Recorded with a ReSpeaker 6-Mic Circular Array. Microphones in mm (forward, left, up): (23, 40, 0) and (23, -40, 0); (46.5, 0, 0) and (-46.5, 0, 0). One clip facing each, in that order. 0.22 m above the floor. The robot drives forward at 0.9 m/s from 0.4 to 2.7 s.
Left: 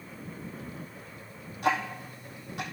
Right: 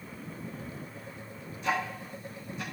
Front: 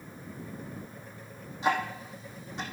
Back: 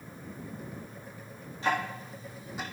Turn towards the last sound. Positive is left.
turn(degrees=95)